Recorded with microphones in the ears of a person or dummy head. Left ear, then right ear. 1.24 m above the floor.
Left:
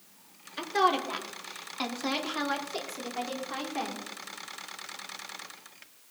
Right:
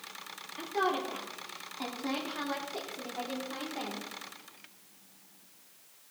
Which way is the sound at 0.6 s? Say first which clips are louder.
Left 5 dB; 60° left (ahead or behind).